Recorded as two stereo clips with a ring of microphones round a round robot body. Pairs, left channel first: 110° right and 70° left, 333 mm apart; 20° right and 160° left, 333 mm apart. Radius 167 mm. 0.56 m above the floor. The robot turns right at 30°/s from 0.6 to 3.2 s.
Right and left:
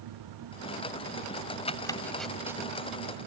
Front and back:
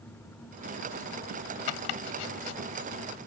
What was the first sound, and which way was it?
Chopping, 40° right.